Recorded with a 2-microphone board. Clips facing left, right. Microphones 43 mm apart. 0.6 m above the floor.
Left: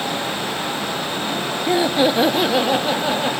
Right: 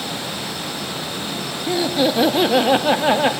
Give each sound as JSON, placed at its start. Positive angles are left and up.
{"t": 1.7, "sound": "laughter", "side_deg": 30, "distance_m": 0.8}